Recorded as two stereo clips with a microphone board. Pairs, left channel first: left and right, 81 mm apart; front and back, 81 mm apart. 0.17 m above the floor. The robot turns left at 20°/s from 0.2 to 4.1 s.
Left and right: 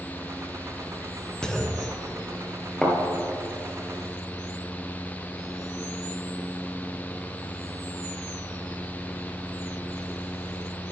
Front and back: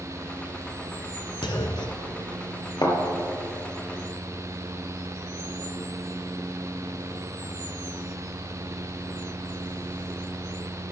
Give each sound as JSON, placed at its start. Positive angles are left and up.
{"t": 1.4, "sound": "a clunk", "azimuth_deg": 10, "distance_m": 0.7}
{"t": 2.8, "sound": "a thud", "azimuth_deg": 15, "distance_m": 1.8}